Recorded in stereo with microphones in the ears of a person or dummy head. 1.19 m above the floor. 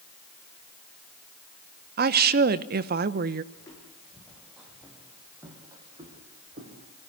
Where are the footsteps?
15° left (ahead or behind), 4.5 m; by 6.9 s 45° right (ahead or behind), 4 m.